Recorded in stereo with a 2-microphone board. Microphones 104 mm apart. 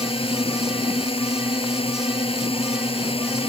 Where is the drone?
65° left (ahead or behind).